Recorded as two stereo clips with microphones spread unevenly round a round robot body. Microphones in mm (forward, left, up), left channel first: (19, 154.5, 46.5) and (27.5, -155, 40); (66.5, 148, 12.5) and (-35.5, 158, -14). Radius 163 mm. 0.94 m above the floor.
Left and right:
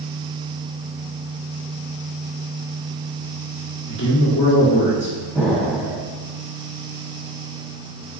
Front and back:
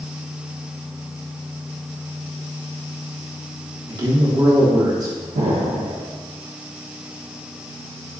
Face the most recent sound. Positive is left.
turn(degrees=180)